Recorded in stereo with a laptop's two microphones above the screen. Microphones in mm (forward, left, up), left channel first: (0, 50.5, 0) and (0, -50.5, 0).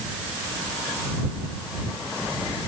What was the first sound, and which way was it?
Only background noise.